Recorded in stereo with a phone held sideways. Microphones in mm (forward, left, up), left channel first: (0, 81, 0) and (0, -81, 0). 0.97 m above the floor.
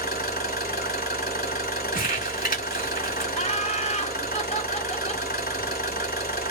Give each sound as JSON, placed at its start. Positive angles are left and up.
{"t": 0.0, "sound": "an engine running", "side_deg": 70, "distance_m": 1.9}
{"t": 1.9, "sound": "crumpling", "side_deg": 60, "distance_m": 2.0}
{"t": 3.3, "sound": "laughter", "side_deg": 40, "distance_m": 0.9}